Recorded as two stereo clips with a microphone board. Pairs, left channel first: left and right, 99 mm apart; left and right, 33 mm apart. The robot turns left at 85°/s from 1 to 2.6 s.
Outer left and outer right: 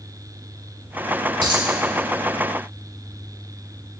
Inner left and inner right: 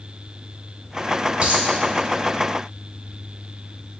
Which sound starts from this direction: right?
A dropped coin, at 1.4 s.